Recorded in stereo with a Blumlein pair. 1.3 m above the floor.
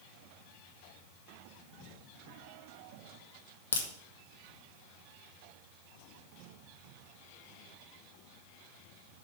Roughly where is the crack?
Left.